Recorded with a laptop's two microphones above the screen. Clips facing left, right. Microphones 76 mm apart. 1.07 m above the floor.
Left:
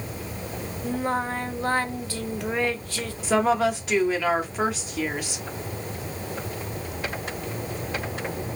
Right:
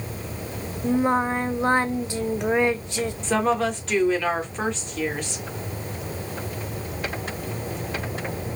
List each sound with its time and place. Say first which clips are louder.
0.8 s singing: right 5 dB; 20° right (ahead or behind), 0.7 m
3.2 s a woman speaking: left 2 dB; 10° left (ahead or behind), 1.8 m